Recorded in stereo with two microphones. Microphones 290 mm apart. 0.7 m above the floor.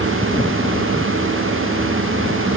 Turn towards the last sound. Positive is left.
No sound to turn to.